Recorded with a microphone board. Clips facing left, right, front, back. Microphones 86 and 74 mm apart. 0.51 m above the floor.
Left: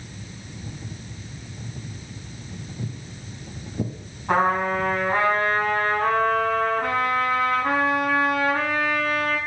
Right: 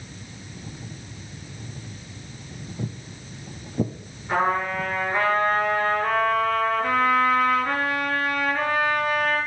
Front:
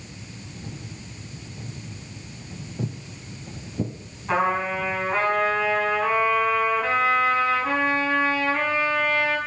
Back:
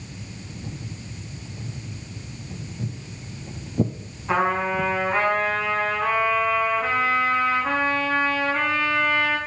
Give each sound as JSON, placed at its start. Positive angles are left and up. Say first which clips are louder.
{"t": 2.8, "sound": "footsteps", "louder": "right 4 dB, front 2 dB", "azimuth_deg": -25, "distance_m": 0.8}
{"t": 4.3, "sound": "a trumpet", "louder": "left 2 dB, back 1 dB", "azimuth_deg": 95, "distance_m": 4.5}